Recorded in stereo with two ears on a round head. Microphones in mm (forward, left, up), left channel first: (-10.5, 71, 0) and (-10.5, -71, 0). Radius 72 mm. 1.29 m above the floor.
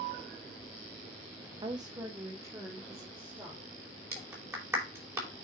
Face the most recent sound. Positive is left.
turn(degrees=-20)  # may be behind; listen again after turning